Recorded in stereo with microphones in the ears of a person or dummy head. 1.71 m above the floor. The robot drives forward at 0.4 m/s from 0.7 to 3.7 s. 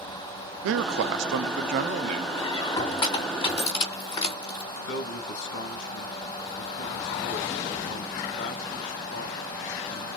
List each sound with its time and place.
0.6 s a man speaking: 75° right (ahead or behind), 0.5 m; by 2.3 s 40° right (ahead or behind), 0.8 m
2.4 s a squeak: 25° left (ahead or behind), 2.5 m
4.9 s a man speaking: 70° left (ahead or behind), 1.6 m